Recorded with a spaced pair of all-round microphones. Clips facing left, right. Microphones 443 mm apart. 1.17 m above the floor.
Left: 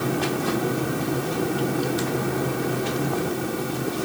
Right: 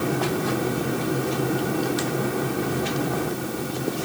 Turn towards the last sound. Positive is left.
No sound to turn to.